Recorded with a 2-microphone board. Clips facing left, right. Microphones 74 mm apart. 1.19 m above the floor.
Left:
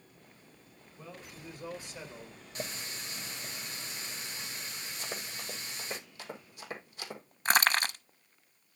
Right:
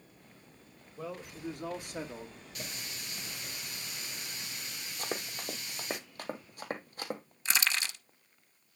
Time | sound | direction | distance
1.0 | a man speaking | 75° right (ahead or behind) | 2.5 m
2.5 | a running tap | 30° left (ahead or behind) | 1.6 m
5.0 | running footsteps | 50° right (ahead or behind) | 1.8 m
7.5 | crushing | 45° left (ahead or behind) | 0.7 m